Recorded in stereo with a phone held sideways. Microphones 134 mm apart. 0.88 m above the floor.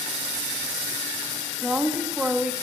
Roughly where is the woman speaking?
Centre.